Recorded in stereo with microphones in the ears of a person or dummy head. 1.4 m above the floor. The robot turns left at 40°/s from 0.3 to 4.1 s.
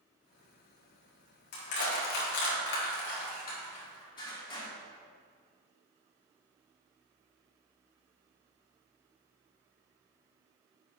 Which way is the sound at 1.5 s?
50° left (ahead or behind).